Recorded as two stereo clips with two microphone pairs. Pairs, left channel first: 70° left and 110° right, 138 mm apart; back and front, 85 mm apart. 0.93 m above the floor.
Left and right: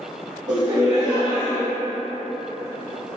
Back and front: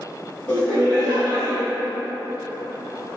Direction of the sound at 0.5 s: 115° right.